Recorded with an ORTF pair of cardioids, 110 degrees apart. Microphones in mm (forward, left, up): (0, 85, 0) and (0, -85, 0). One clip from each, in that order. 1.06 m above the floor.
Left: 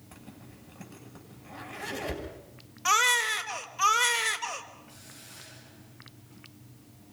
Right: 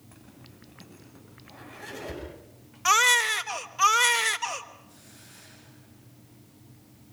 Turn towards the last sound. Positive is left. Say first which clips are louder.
# left 3 dB
turn(degrees=10)